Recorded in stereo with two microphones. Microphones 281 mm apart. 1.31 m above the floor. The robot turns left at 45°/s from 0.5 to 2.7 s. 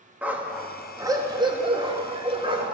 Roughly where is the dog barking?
Centre.